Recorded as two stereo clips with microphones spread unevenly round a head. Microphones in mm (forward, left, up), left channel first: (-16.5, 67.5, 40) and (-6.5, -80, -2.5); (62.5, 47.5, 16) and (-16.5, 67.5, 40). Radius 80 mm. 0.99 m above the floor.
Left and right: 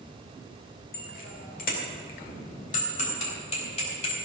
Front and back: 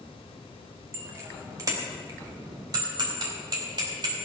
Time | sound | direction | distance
0.9 | a bicycle bell | 115° left | 2.5 m